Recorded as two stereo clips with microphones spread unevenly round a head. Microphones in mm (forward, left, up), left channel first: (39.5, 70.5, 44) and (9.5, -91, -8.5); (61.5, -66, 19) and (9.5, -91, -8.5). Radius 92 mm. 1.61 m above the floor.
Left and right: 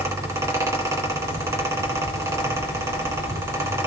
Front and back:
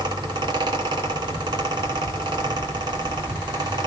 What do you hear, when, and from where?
0.0 s a fan: 175° left, 2.5 m